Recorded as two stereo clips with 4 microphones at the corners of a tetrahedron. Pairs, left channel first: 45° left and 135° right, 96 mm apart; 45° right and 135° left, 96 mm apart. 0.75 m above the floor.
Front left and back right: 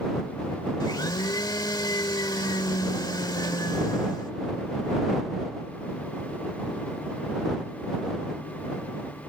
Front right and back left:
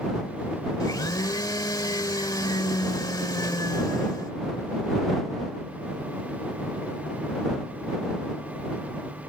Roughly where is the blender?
Ahead.